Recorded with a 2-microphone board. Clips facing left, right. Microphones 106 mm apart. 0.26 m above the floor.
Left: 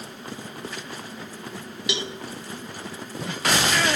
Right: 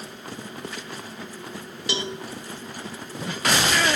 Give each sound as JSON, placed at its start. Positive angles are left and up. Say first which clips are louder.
{"t": 1.9, "sound": "a cowbell", "louder": "right 1 dB", "side_deg": -30, "distance_m": 0.6}